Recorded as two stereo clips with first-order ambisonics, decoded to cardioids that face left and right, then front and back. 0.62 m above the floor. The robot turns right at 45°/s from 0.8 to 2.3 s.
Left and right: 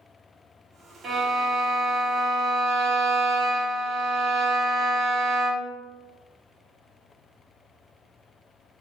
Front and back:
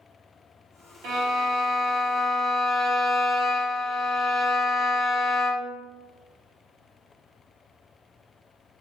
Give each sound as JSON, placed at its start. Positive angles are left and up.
{"t": 1.0, "sound": "a violin", "azimuth_deg": -165, "distance_m": 0.8}